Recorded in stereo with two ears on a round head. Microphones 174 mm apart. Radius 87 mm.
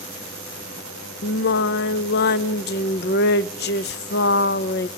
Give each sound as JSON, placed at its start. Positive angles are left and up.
{"t": 1.2, "sound": "singing", "side_deg": 55, "distance_m": 0.5}